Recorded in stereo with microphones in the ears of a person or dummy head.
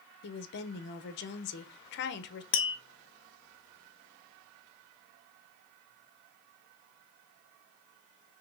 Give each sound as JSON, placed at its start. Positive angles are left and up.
{"t": 0.2, "sound": "a woman speaking", "side_deg": 55, "distance_m": 0.6}
{"t": 2.5, "sound": "tapping", "side_deg": 30, "distance_m": 0.5}